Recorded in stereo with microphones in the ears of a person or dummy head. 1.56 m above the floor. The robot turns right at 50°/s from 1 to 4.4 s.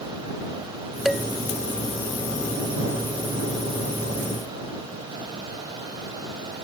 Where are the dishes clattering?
Centre (ahead or behind); by 1.2 s 5° left (ahead or behind).